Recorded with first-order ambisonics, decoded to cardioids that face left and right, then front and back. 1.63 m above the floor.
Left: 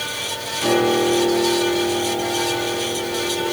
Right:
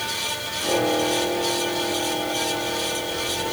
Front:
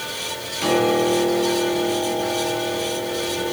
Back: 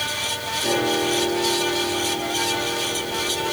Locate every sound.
0.6 s a piano: 35° left, 6.5 m